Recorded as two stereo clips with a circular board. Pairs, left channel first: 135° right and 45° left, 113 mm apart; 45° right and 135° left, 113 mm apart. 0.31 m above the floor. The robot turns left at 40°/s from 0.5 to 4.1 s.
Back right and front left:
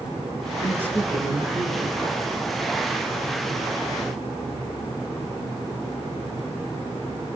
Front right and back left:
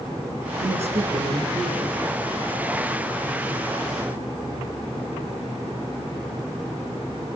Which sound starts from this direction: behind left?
A man speaking, at 0.6 s.